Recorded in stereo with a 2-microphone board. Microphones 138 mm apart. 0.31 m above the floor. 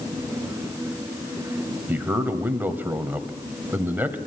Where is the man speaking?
15° right (ahead or behind), 1.7 m.